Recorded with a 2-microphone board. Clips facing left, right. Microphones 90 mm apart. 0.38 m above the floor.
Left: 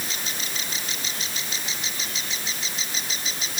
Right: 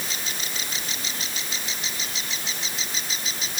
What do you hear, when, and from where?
Only background noise.